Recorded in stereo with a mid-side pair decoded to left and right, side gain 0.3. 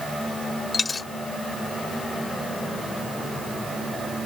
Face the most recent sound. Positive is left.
turn(degrees=45)